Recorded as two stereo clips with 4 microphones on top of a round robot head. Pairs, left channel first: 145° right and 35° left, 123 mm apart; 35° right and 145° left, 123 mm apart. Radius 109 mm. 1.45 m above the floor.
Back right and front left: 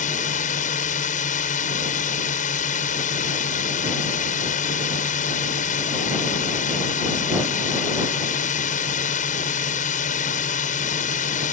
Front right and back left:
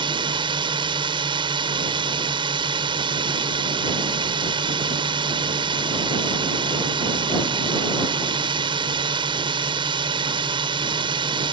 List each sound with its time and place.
0.0 s a drone: 165° right